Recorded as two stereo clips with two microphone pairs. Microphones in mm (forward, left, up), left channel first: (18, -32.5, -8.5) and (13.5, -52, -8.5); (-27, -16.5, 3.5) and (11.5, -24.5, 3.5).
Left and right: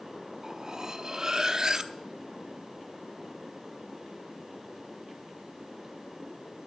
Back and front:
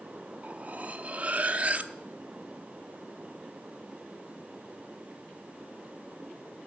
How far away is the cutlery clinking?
About 0.6 m.